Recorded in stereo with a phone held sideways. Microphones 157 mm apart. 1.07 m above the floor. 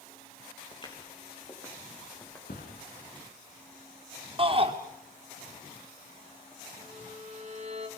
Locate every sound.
0.7 s footsteps: 35° left (ahead or behind), 5.5 m; by 2.4 s 15° left (ahead or behind), 6 m
2.5 s a thud: 75° left (ahead or behind), 7 m
4.4 s a shout: 35° right (ahead or behind), 3.5 m
6.8 s a violin: 45° right (ahead or behind), 3.5 m